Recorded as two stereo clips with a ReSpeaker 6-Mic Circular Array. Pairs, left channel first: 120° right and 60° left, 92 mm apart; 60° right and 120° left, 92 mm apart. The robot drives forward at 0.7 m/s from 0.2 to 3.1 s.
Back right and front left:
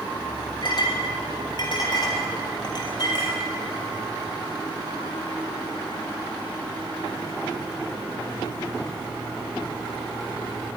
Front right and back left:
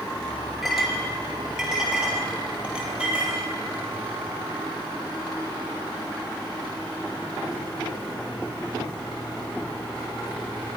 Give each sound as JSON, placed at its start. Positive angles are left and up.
{"t": 0.6, "sound": "a clink", "azimuth_deg": -150, "distance_m": 3.0}